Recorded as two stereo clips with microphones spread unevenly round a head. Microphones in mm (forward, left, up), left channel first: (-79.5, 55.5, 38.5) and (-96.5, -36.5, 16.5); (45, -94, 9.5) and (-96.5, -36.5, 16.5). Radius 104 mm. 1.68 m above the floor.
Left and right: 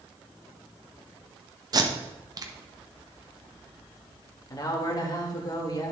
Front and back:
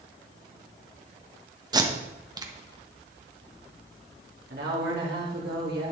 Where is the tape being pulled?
145° right, 1.2 m.